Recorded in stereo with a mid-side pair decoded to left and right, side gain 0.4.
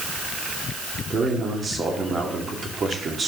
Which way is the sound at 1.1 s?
45° right.